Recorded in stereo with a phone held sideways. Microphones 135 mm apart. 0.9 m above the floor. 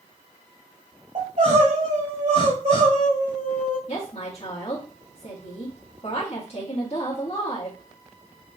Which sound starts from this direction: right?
Crying, at 1.1 s.